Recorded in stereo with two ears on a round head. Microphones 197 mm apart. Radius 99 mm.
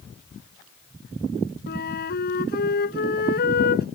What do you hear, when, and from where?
1.7 s a flute: 45° left (ahead or behind)